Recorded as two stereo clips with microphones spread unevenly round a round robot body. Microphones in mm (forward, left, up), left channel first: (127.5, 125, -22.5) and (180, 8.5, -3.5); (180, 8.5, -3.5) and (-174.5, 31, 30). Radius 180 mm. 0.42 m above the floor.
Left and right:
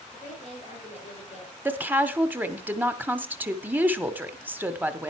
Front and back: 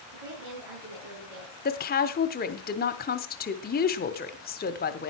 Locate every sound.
0.1 s a woman speaking: 170° right, 7 m
1.6 s a woman speaking: 15° left, 0.9 m